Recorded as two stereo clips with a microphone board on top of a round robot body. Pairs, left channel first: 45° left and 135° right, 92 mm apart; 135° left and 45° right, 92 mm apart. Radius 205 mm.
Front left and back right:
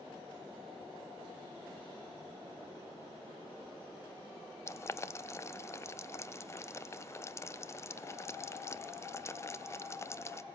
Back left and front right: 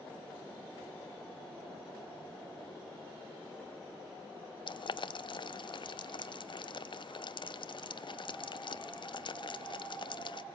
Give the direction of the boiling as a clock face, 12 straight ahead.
9 o'clock.